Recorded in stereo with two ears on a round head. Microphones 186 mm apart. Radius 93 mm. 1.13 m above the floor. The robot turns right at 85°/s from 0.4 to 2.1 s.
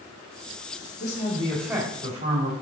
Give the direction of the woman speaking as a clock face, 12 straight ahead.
7 o'clock.